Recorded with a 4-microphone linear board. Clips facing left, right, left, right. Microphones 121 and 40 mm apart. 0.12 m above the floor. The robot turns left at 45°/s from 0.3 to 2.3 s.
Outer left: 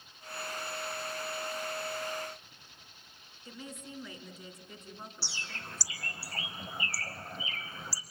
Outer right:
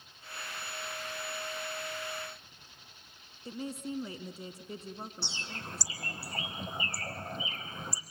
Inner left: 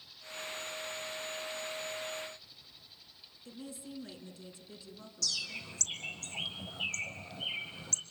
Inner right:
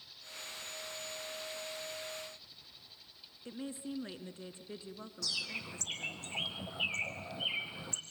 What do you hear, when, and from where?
3.5 s a woman speaking: 35° right (ahead or behind), 1.3 m
5.2 s a bird: 20° right (ahead or behind), 1.6 m